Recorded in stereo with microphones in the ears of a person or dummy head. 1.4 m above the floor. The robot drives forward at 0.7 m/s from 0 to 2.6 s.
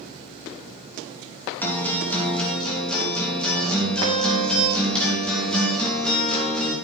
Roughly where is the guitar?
Centre.